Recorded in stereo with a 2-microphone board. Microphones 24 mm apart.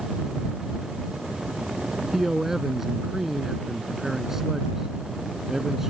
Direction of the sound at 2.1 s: 15° right (ahead or behind).